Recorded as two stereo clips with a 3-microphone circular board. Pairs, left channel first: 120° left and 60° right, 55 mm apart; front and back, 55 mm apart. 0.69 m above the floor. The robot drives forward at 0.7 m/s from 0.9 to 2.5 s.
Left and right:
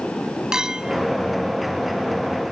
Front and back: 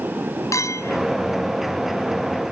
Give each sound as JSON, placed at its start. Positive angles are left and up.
{"t": 0.5, "sound": "a clink", "azimuth_deg": 20}